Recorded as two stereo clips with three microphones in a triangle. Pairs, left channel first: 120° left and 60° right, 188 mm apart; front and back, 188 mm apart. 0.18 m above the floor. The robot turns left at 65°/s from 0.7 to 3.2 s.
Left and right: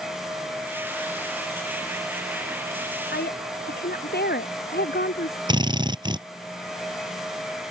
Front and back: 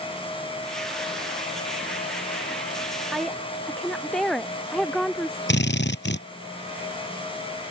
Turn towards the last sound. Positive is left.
turn(degrees=5)